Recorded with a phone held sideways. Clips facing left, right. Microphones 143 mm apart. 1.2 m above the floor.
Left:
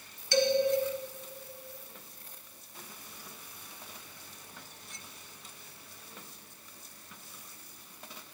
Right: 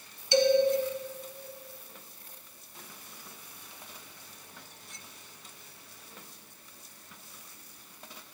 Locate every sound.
0.3 s a man speaking: 20° right (ahead or behind), 1.4 m